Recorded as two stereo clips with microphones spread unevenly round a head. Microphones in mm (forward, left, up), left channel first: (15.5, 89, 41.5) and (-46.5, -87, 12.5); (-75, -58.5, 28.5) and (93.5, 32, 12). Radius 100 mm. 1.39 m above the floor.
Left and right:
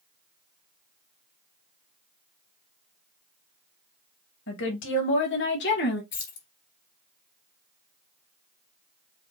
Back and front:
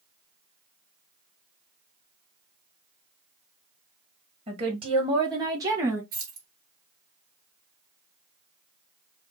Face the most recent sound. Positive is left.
turn(degrees=100)